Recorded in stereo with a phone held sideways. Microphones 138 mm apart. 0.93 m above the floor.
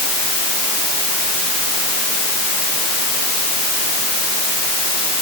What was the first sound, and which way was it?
Only background noise.